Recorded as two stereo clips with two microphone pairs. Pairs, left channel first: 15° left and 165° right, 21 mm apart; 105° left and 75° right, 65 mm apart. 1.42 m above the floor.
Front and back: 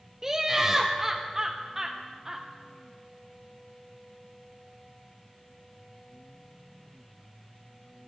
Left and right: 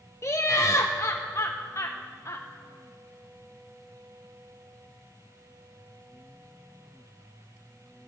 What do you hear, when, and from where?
0.2 s laughter: 135° left, 0.5 m